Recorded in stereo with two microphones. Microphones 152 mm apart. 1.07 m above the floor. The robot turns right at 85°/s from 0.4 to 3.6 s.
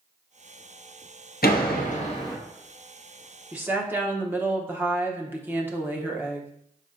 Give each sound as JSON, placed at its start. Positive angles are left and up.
{"t": 1.4, "sound": "a door slam", "azimuth_deg": 80, "distance_m": 0.9}
{"t": 3.5, "sound": "a woman speaking", "side_deg": -5, "distance_m": 0.8}